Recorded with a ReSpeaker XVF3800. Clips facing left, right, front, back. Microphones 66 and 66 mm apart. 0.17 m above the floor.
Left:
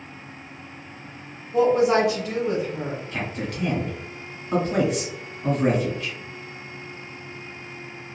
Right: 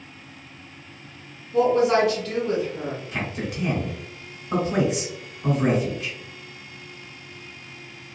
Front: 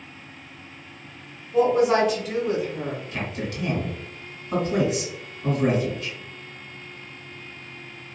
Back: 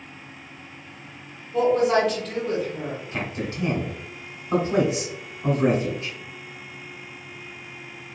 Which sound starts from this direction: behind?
A man speaking, at 3.1 s.